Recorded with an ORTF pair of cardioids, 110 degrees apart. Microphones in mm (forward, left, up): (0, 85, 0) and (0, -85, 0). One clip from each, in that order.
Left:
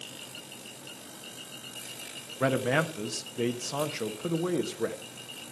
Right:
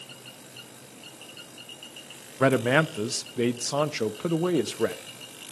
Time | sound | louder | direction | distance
2.4 | a man speaking | right 5 dB | 30° right | 0.7 m